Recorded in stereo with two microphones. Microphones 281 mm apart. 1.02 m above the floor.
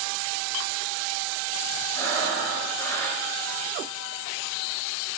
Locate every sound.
1.9 s breathing: 10° left (ahead or behind), 4.5 m